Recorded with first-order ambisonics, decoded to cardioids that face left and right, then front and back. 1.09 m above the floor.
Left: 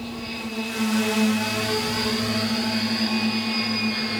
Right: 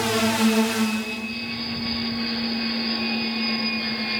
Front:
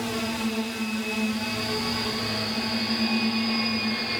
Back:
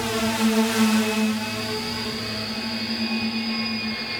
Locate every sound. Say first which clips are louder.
0.0 s a drone: right 11 dB, back 5 dB; 110° right; by 4.2 s 85° left